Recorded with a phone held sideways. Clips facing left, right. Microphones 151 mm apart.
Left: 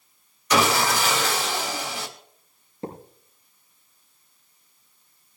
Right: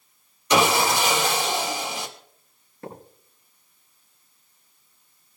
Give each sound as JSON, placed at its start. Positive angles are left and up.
{"t": 0.5, "sound": "sawing", "side_deg": -25, "distance_m": 2.5}
{"t": 2.8, "sound": "a thud", "side_deg": 20, "distance_m": 6.5}